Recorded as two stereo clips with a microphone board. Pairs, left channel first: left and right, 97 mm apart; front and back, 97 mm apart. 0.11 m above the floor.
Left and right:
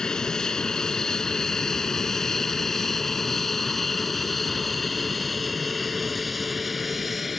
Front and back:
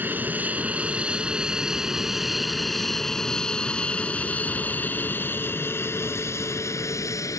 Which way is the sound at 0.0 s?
160° left.